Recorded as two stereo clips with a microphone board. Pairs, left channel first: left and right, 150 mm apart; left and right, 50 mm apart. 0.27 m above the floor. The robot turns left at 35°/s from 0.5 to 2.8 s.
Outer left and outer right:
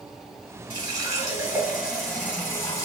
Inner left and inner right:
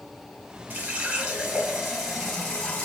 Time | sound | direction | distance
0.7 | a running tap | 135° right | 1.3 m